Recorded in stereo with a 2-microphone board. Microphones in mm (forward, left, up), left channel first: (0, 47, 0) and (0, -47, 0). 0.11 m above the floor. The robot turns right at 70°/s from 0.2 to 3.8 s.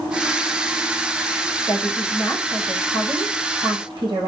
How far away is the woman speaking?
About 5.5 m.